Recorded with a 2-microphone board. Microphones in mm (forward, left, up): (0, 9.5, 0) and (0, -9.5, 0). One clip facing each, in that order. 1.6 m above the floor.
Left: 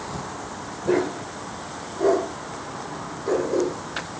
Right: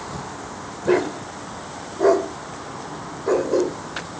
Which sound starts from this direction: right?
A dog barking, at 0.8 s.